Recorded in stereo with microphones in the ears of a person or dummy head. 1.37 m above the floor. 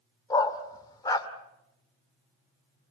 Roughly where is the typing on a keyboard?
I don't hear typing on a keyboard.